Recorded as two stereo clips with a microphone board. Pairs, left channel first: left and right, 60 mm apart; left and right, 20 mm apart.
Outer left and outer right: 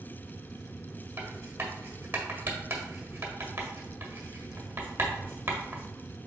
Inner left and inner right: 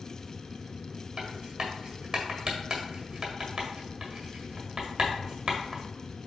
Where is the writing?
35° right (ahead or behind), 1.5 m.